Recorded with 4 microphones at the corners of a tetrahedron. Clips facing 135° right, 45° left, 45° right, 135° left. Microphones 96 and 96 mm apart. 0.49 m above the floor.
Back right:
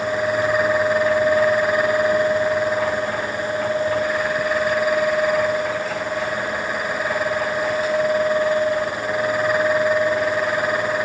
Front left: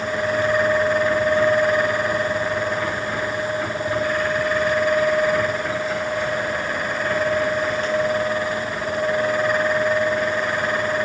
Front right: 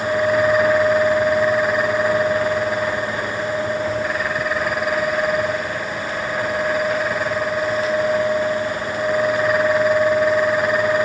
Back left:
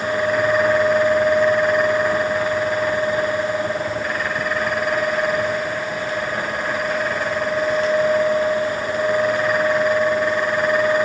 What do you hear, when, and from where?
Only background noise.